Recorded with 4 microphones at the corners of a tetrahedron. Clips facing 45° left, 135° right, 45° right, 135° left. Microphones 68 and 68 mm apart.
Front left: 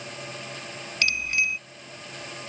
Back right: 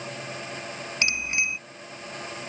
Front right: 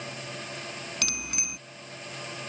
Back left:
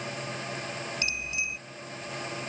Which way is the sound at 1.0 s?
65° right.